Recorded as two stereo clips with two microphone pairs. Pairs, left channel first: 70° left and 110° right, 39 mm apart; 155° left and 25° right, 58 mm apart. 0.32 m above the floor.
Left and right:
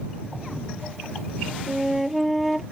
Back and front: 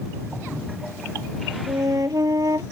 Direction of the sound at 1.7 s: 25° right.